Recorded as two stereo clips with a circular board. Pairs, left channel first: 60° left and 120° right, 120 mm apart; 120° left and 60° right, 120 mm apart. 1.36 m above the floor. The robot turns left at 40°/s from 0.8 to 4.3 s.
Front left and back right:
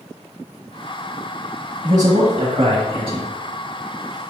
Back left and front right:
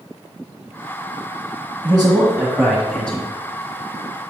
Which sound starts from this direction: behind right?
A man speaking, at 1.8 s.